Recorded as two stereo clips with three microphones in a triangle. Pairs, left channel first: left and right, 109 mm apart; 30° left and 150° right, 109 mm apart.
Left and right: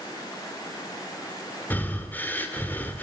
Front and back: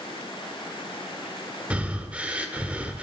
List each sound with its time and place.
1.7 s breathing: 145° left, 1.5 m